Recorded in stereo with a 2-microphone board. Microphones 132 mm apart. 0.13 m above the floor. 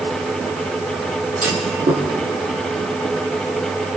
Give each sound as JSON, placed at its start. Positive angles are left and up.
{"t": 1.4, "sound": "a clunk", "side_deg": -75, "distance_m": 5.5}